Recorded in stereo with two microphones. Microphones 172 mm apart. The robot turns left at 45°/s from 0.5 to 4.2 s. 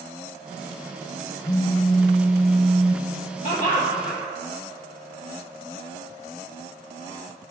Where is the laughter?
50° left, 1.1 m; by 4.2 s 15° left, 1.1 m.